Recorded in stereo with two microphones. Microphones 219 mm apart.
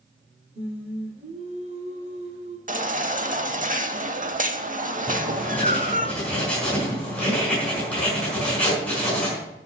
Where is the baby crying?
35° right (ahead or behind), 0.8 m.